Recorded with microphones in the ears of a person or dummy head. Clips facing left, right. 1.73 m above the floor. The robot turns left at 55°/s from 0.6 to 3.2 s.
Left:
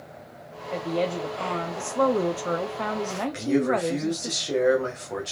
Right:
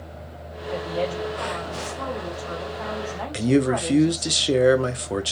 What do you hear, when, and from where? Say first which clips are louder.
0.7 s a woman speaking: even; straight behind, 0.8 m; by 4.3 s 40° left, 0.8 m
3.3 s a man speaking: right 4 dB; 45° right (ahead or behind), 0.6 m